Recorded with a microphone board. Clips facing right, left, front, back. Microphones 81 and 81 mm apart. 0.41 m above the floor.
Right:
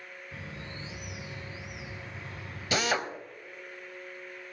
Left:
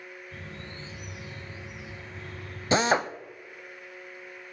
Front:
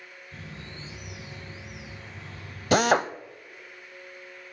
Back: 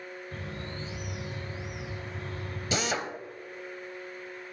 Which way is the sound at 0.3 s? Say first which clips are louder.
Right 2 dB, back 2 dB; 165° right.